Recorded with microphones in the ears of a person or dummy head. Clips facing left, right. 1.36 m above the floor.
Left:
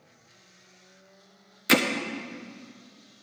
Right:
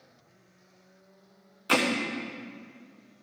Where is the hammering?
25° left (ahead or behind), 0.5 m.